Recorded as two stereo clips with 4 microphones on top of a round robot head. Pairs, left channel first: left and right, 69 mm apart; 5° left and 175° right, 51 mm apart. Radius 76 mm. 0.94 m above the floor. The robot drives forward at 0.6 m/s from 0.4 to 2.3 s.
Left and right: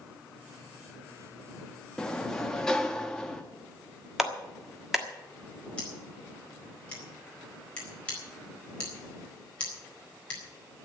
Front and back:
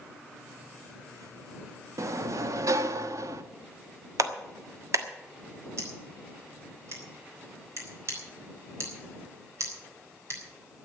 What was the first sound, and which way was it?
A sliding door, 170° left.